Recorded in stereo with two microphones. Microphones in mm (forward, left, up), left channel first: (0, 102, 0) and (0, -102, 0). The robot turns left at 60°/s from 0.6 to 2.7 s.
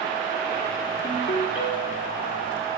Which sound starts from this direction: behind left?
A ringtone, at 1.0 s.